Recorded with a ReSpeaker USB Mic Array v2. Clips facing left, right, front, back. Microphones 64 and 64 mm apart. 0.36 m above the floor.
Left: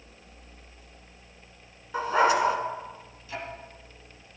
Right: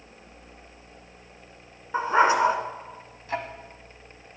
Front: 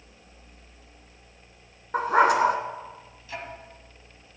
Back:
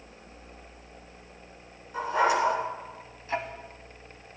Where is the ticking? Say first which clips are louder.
Right 6 dB, back 6 dB; 130° right, 1.2 m.